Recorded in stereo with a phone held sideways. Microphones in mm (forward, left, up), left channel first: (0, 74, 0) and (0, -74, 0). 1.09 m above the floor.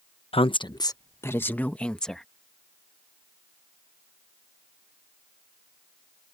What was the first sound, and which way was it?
A woman speaking, 40° left (ahead or behind).